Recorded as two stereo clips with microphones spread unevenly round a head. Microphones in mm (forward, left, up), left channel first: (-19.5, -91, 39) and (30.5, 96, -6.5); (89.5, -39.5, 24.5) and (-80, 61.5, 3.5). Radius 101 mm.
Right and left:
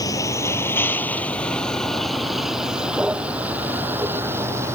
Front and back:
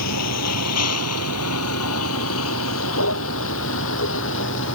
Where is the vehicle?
30° right; by 4.8 s straight ahead.